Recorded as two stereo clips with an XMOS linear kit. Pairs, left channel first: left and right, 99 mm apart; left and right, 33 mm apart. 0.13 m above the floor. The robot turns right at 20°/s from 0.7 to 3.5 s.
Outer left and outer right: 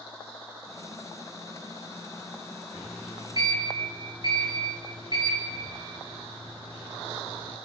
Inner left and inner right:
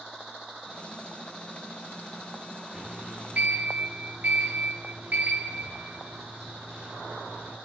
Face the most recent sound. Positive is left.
turn(degrees=-40)  # may be behind; listen again after turning